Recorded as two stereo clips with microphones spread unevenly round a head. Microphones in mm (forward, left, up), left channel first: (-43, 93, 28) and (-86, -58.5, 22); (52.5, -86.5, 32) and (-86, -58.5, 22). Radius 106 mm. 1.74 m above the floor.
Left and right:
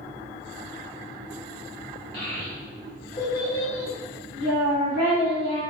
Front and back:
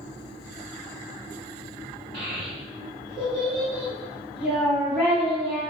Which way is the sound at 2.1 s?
70° left.